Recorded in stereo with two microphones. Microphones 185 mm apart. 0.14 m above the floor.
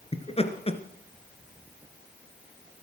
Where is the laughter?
35° left (ahead or behind), 1.9 m.